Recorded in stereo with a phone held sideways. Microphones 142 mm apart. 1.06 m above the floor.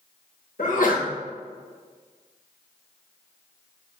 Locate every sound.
0.6 s a sneeze: 70° left (ahead or behind), 1.2 m